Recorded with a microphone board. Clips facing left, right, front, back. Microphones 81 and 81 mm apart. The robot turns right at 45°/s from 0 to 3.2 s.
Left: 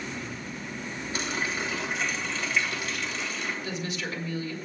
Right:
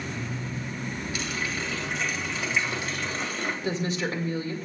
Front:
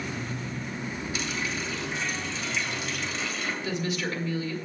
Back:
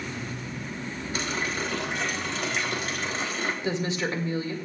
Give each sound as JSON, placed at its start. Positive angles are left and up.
{"t": 1.1, "sound": "a running tap", "azimuth_deg": 140, "distance_m": 1.9}
{"t": 3.6, "sound": "a woman speaking", "azimuth_deg": -130, "distance_m": 1.7}